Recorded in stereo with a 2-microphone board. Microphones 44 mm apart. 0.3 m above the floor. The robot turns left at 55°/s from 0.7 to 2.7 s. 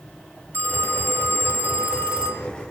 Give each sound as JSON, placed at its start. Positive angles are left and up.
{"t": 0.5, "sound": "a phone ringing", "azimuth_deg": -65, "distance_m": 3.5}